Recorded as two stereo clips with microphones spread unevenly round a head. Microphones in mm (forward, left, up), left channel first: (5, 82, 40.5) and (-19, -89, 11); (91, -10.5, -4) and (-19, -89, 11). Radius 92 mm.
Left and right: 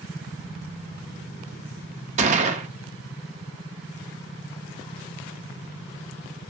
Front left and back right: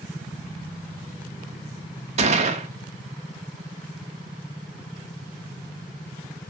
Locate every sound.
2.2 s a gunshot: 150° right, 1.2 m